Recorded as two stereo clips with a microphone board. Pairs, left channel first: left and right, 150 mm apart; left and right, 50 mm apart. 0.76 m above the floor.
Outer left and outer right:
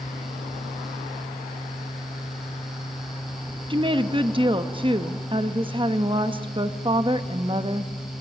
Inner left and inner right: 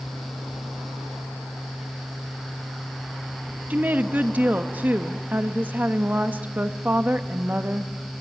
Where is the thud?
No thud in this recording.